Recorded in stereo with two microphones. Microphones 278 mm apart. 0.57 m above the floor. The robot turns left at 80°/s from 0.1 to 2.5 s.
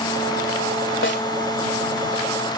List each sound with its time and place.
1.0 s a snare drum: 45° left (ahead or behind); by 1.3 s 30° left (ahead or behind)